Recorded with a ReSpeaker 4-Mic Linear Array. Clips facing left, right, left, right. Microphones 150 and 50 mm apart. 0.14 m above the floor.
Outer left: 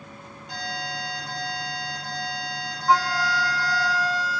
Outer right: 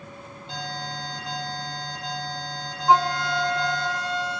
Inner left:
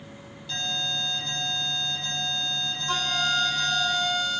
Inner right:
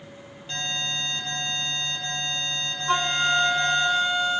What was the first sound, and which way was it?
An alarm, 25° right (ahead or behind).